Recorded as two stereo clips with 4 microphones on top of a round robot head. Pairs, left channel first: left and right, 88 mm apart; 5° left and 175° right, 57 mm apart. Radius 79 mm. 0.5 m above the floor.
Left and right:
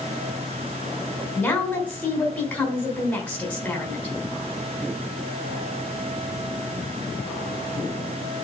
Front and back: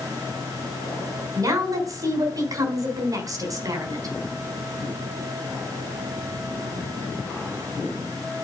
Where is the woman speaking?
170° left, 4 m.